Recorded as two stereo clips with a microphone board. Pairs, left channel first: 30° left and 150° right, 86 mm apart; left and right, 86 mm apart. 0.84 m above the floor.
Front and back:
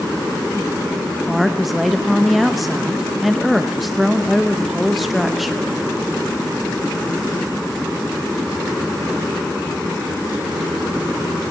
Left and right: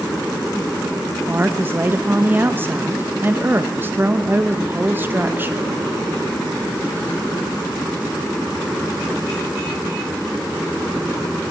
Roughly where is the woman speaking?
Ahead right.